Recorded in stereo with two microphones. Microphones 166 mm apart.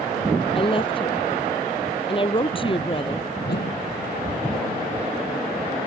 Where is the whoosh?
90° left.